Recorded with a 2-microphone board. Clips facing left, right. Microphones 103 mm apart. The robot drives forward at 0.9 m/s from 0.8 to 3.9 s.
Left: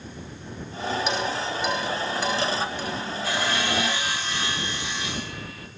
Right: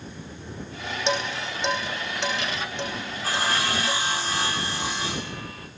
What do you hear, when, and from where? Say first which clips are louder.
1.1 s dishes clattering: left 1 dB; 30° right (ahead or behind), 8 m; by 4.0 s 20° right (ahead or behind), 10 m
3.2 s sawing: right 1 dB; 40° right (ahead or behind), 4 m; by 5.7 s 35° right (ahead or behind), 4.5 m